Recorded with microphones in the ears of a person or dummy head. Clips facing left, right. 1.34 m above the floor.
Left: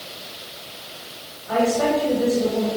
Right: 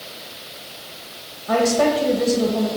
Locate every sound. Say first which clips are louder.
1.5 s a woman speaking: right 2 dB; 85° right, 1.5 m